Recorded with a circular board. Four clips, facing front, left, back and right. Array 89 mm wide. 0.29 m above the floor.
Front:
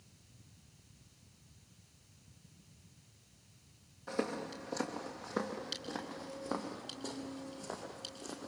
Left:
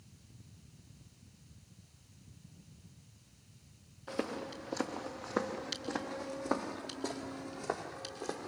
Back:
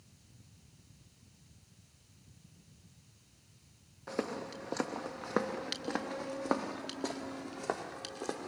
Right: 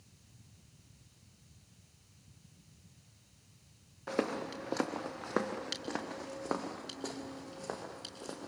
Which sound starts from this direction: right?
Footsteps, at 4.1 s.